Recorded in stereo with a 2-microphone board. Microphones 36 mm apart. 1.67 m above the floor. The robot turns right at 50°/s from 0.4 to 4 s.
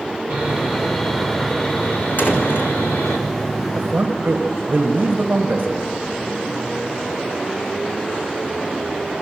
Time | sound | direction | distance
0.3 | sawing | 35° right | 5.5 m
2.2 | a door slam | 65° left (ahead or behind) | 4 m
3.8 | a man speaking | 40° right (ahead or behind) | 2 m